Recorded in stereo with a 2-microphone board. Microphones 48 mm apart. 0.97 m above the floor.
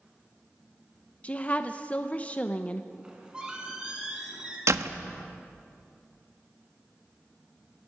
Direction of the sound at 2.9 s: 20° right (ahead or behind).